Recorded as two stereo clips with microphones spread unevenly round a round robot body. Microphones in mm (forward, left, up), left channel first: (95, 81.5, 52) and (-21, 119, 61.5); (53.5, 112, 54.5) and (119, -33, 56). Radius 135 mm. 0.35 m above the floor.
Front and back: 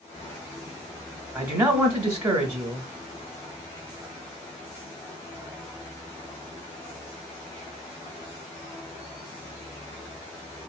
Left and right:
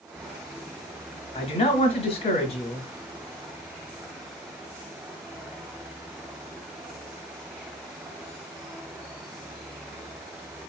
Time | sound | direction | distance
1.4 | a man speaking | 110° left | 1.1 m